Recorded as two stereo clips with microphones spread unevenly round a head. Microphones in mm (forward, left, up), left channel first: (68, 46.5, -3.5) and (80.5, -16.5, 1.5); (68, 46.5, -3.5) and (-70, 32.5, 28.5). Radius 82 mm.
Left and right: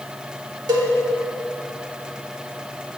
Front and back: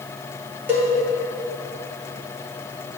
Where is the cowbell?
95° right, 0.7 m.